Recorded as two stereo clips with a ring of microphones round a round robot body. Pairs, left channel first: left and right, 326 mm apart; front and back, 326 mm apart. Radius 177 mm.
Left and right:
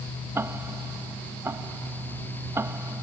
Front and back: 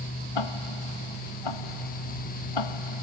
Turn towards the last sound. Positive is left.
turn(degrees=-5)